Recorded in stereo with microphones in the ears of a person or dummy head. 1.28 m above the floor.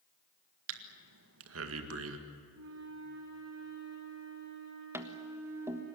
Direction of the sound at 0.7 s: 75° right (ahead or behind).